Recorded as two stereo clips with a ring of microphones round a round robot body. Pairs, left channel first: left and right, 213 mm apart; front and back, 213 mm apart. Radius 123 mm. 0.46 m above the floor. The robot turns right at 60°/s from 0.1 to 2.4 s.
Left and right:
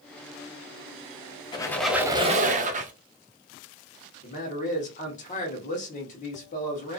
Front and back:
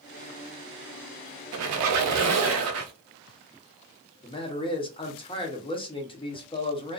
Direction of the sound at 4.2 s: 55° left.